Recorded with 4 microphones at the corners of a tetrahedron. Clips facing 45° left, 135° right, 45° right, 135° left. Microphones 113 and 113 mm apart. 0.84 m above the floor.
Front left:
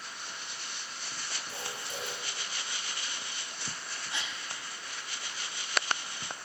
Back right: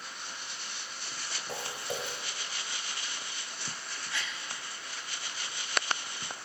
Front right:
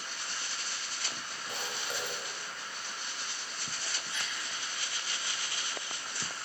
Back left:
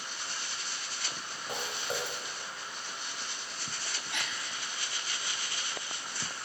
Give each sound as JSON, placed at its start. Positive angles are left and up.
{"t": 1.5, "sound": "footsteps", "azimuth_deg": -165, "distance_m": 3.0}
{"t": 4.1, "sound": "a gasp", "azimuth_deg": 115, "distance_m": 0.7}